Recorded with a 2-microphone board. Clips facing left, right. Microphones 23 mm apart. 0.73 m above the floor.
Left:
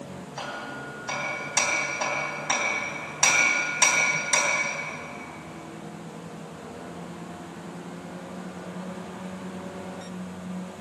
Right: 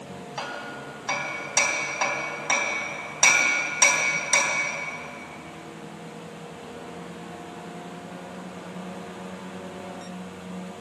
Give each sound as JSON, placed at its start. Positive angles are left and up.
{"t": 0.4, "sound": "hammering", "side_deg": -25, "distance_m": 3.5}